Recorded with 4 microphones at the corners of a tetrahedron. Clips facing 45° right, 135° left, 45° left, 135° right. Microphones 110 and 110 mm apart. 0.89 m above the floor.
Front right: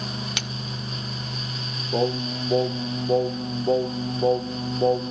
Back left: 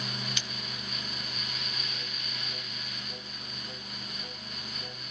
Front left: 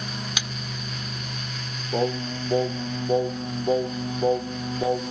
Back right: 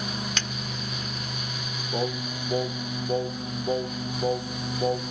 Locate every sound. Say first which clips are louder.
0.4 s a splash: front right 8 dB, back right 1 dB; 35° right
1.9 s singing: front right 20 dB, front left 4 dB; 25° right